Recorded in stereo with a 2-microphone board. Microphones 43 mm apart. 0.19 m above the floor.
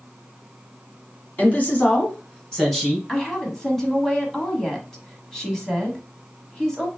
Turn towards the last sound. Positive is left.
turn(degrees=10)  # may be behind; listen again after turning